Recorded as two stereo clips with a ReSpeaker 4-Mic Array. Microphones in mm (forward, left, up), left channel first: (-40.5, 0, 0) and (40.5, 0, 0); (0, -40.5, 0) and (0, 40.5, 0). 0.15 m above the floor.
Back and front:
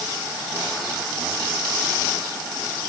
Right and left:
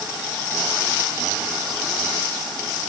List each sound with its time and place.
Only background noise.